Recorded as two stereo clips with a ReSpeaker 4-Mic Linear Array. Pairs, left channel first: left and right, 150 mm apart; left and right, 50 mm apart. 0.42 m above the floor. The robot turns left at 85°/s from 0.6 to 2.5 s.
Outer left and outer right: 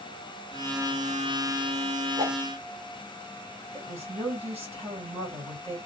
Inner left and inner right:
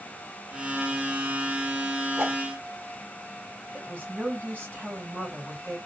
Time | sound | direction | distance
2.2 | a whoosh | 35° right (ahead or behind) | 1.3 m
3.7 | a woman speaking | 45° right (ahead or behind) | 1.9 m